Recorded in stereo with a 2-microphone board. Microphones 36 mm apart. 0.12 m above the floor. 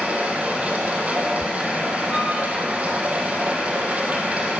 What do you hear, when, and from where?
0.0 s running water: 40° right (ahead or behind), 3 m
2.1 s a violin: 10° left (ahead or behind), 5.5 m